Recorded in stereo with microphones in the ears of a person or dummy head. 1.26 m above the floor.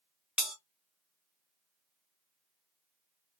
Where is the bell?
5° right (ahead or behind), 1.3 m.